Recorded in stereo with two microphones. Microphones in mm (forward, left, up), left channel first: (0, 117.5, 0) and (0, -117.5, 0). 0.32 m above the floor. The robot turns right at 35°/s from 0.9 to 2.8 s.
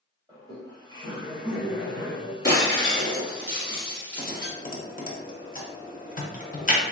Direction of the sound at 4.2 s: 35° left (ahead or behind).